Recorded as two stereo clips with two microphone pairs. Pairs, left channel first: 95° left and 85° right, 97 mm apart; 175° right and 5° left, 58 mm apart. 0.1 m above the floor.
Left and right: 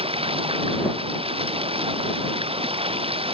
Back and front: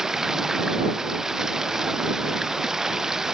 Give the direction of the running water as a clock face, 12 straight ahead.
3 o'clock.